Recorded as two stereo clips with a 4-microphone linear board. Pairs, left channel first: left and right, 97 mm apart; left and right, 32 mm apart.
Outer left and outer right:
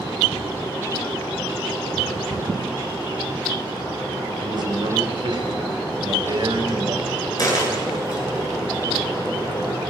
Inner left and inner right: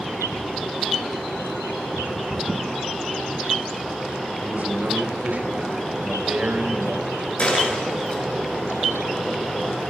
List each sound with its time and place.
4.4 s a man speaking: 50° right (ahead or behind), 5 m
7.4 s a dropped coin: 40° left (ahead or behind), 8.5 m